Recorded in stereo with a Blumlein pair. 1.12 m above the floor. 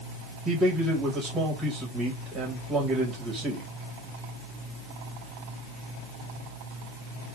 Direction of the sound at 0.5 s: 20° right.